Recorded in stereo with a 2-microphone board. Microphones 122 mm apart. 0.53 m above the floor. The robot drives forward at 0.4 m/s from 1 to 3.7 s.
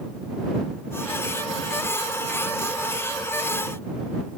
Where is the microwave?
I don't hear a microwave.